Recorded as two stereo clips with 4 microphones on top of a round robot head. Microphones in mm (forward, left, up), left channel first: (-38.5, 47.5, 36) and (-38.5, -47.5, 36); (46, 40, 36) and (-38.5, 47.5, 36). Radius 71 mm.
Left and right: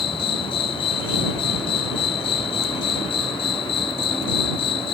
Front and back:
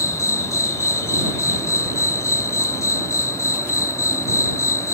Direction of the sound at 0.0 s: 50° left.